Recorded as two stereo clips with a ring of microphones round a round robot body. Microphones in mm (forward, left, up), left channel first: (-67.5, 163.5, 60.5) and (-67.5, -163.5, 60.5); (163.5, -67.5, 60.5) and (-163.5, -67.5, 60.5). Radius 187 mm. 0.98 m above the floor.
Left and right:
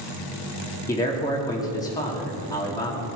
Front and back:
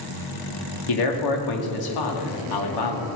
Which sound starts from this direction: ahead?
A man speaking, at 0.9 s.